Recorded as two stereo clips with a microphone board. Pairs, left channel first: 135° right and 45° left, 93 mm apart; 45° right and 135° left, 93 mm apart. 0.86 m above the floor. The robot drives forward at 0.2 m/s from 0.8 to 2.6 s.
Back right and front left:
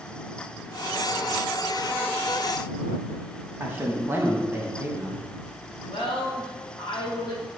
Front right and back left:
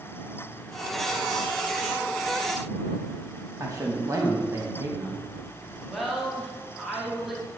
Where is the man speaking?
100° left, 0.6 m.